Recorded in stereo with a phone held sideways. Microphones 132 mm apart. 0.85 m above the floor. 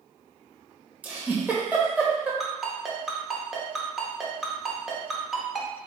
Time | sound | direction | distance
1.0 | a giggle | 10° right (ahead or behind) | 1.3 m
2.4 | a ringtone | 5° right (ahead or behind) | 1.1 m